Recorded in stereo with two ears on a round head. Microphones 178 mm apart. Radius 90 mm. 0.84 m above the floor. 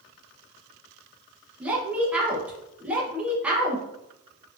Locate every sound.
1.6 s a woman speaking: 5° right (ahead or behind), 0.9 m